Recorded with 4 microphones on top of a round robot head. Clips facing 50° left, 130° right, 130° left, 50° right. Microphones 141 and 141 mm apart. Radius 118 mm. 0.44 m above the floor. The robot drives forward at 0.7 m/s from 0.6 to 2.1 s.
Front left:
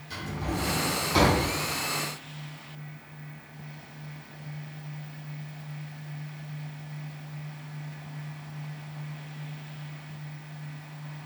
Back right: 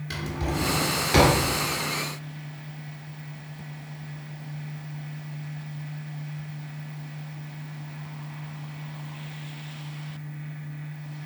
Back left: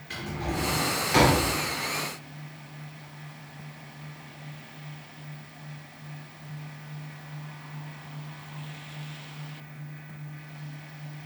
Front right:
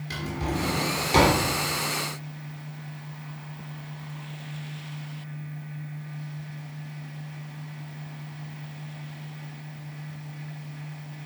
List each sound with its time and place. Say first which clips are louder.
0.1 s a drawer: back right 2 dB, front right 2 dB; 105° right, 2 m; by 1.4 s 120° right, 2.5 m